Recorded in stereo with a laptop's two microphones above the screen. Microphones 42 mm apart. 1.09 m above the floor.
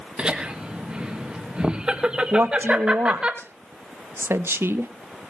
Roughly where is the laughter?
Right.